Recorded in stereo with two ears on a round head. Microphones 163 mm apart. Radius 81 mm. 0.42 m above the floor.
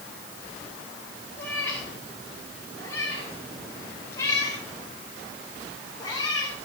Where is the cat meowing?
10° left (ahead or behind), 7.5 m; by 6.6 s 25° left (ahead or behind), 5 m.